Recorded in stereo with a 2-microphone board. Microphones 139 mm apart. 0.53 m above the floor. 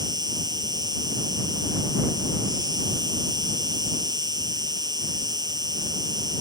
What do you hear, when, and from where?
0.0 s an insect: 30° right (ahead or behind)